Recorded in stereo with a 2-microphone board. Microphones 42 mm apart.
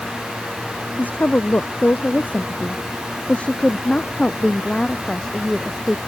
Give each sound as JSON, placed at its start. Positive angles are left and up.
{"t": 1.0, "sound": "a woman speaking", "side_deg": 40}